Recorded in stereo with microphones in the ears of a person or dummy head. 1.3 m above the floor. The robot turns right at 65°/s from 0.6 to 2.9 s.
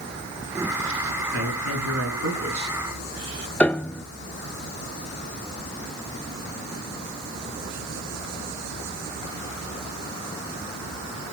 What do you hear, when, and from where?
1.3 s a man speaking: 110° right, 7.5 m; by 2.8 s 15° right, 7.5 m
3.6 s a piano: 5° left (ahead or behind), 0.7 m